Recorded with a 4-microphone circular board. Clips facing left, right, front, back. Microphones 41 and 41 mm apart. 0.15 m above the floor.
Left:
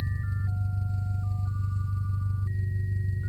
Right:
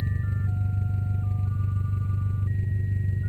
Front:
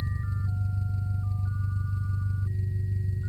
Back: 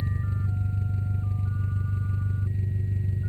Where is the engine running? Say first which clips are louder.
Right 3 dB, back 3 dB; 130° right, 0.9 m.